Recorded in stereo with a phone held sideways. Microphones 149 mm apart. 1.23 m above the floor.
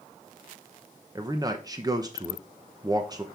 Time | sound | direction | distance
1.1 | a man speaking | 25° right (ahead or behind) | 0.7 m